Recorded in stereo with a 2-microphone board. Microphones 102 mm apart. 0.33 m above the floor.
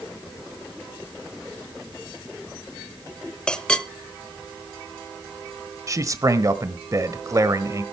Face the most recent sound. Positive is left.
turn(degrees=-35)  # may be behind; listen again after turning